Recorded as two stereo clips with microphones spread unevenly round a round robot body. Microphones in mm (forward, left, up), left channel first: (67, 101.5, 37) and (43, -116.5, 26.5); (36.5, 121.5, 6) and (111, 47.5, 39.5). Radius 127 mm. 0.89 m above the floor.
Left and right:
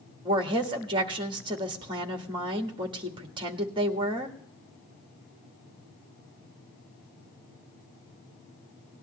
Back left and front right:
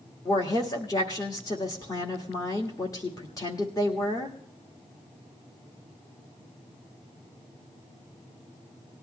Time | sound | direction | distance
0.2 | a woman speaking | 165° right | 1.4 m